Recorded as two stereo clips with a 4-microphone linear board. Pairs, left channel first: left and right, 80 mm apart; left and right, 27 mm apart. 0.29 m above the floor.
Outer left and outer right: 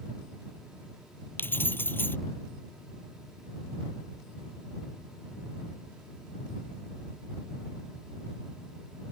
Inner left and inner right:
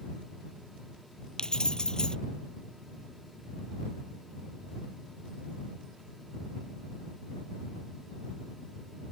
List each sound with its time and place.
1.4 s keys jangling: 25° left (ahead or behind)